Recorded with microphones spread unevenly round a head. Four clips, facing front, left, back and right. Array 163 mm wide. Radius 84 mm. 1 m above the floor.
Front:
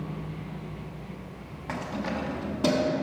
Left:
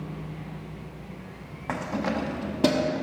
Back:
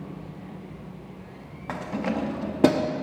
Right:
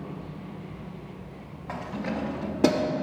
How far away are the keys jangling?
About 0.8 m.